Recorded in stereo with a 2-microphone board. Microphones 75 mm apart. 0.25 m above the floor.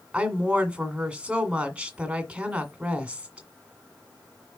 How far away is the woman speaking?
About 1.8 m.